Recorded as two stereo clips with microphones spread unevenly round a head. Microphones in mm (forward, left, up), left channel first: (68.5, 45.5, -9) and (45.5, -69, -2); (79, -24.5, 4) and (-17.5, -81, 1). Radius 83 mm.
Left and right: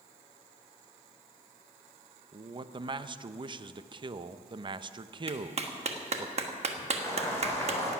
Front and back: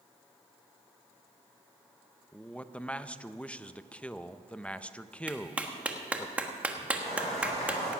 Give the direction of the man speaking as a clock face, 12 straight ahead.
2 o'clock.